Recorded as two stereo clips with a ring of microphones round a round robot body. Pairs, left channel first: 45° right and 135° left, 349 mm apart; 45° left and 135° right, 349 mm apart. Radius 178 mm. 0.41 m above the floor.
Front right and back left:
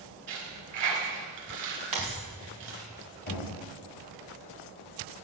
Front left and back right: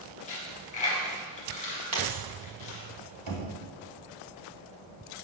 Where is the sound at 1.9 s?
175° left, 2 m.